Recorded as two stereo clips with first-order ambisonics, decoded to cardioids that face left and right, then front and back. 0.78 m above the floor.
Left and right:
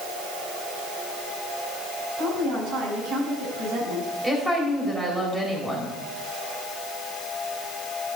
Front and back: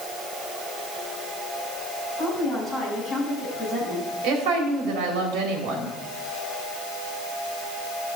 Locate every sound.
2.2 s a woman speaking: 100° right, 5 m
4.2 s a woman speaking: 170° right, 3.5 m